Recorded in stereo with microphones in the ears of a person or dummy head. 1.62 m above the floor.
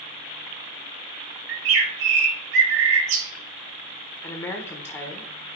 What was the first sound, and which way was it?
A bird, 80° right.